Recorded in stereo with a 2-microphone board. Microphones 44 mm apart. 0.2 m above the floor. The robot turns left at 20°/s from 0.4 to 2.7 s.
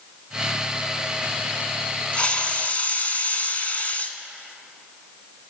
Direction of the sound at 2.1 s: 25° left (ahead or behind).